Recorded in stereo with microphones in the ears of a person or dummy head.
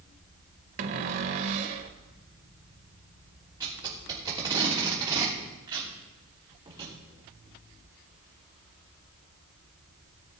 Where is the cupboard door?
40° right (ahead or behind), 0.9 m.